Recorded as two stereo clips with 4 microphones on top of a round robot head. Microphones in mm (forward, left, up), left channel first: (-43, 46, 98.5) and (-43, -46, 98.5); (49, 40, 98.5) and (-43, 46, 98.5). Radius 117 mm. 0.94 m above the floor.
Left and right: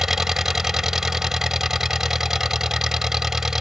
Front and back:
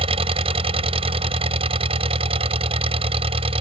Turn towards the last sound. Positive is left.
turn(degrees=-175)